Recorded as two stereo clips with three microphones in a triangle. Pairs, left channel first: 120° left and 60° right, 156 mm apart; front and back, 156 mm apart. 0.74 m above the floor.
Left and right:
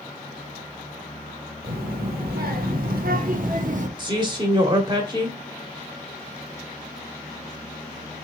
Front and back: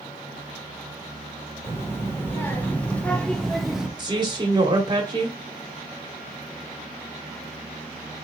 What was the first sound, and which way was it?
A child speaking, 75° right.